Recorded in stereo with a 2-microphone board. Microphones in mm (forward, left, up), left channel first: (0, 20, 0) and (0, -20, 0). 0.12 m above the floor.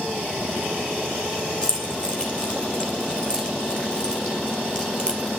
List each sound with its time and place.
1.6 s keys jangling: 20° left (ahead or behind), 2.5 m